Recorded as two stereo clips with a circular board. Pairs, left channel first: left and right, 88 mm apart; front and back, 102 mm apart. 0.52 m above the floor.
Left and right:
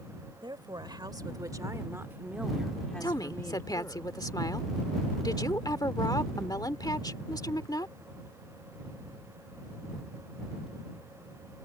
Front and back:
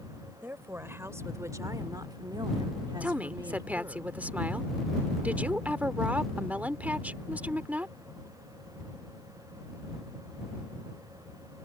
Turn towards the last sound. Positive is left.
turn(degrees=110)